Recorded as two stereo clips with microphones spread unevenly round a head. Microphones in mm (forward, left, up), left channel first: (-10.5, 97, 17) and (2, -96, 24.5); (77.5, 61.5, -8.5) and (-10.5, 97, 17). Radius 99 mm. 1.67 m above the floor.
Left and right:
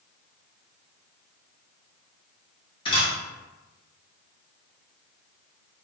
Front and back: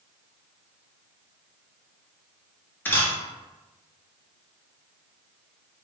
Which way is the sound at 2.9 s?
55° left.